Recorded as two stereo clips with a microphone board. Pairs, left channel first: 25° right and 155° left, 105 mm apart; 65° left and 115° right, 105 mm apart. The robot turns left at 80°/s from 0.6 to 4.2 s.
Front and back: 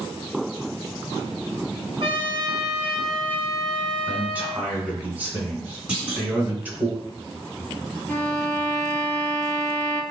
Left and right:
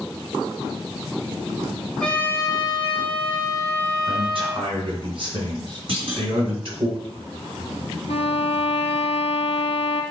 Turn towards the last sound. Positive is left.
turn(degrees=45)